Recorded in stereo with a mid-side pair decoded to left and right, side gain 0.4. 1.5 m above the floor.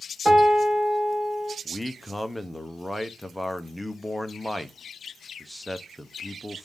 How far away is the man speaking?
About 0.7 m.